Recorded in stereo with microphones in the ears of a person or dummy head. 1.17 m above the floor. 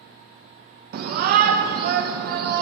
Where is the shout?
40° right (ahead or behind), 0.7 m.